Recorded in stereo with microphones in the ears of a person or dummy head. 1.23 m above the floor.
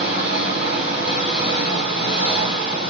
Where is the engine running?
40° right (ahead or behind), 1.1 m.